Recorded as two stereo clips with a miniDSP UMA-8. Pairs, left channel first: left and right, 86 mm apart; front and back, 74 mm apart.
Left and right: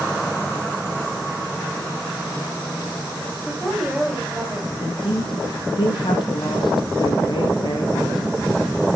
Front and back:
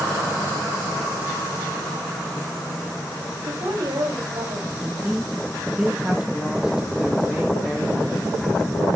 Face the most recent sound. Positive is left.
turn(degrees=100)